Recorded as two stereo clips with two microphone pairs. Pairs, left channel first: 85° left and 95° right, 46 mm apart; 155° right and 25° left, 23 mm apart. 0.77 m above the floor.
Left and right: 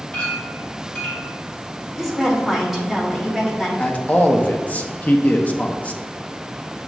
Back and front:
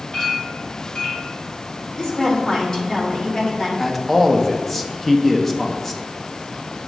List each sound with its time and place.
0.1 s a clink: 155° left, 1.5 m
1.9 s a woman speaking: straight behind, 1.1 m
3.8 s a man speaking: 130° left, 0.5 m